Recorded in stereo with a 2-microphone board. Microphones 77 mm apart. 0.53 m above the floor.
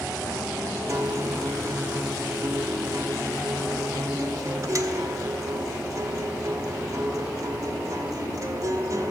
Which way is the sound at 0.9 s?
40° right (ahead or behind).